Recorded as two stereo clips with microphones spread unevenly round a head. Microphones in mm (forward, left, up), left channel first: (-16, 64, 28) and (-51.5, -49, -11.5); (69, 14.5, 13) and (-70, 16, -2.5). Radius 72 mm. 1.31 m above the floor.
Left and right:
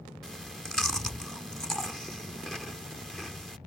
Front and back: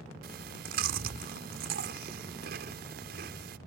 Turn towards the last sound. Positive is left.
turn(degrees=160)